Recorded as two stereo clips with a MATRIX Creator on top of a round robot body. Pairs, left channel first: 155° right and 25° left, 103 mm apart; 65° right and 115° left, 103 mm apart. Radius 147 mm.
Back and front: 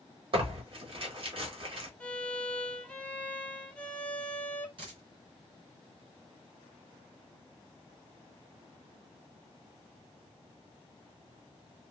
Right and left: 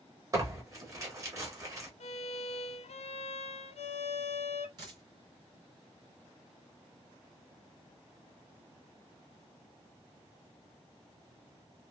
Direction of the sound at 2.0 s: 80° right.